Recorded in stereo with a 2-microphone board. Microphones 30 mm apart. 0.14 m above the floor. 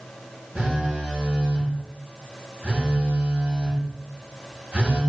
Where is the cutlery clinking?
I don't hear cutlery clinking.